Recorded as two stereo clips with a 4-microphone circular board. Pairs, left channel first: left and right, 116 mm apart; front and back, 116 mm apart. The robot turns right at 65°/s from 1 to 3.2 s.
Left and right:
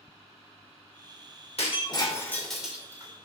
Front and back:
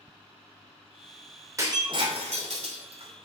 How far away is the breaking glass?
About 3 m.